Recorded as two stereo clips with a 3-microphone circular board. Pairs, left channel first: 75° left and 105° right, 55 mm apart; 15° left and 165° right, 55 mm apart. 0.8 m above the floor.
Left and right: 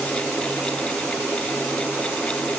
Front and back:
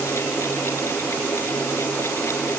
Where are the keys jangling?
I don't hear keys jangling.